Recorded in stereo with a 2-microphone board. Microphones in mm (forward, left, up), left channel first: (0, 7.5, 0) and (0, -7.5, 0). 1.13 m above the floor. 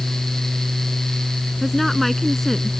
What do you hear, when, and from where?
1.6 s a woman speaking: 10° left (ahead or behind)